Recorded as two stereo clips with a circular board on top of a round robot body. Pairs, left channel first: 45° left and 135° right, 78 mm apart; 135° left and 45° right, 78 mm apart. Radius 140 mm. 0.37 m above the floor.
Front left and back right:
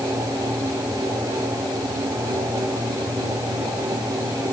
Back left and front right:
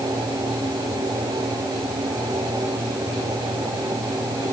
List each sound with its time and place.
Only background noise.